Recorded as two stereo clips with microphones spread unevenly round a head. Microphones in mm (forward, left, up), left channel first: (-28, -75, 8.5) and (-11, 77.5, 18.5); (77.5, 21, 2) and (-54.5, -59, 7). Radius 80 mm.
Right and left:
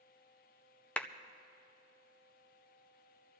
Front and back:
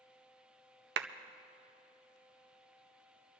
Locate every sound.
1.0 s a clap: straight behind, 0.5 m